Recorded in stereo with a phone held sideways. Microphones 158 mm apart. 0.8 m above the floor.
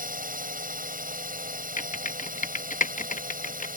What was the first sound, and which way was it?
A drone, 60° right (ahead or behind).